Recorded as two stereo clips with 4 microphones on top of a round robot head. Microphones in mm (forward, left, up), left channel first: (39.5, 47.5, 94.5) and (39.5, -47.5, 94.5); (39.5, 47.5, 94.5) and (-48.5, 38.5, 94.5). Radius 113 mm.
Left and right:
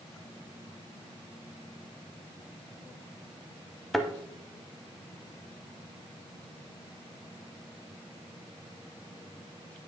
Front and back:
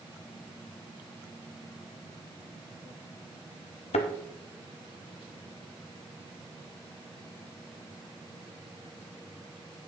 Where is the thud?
Straight ahead, 1.0 m.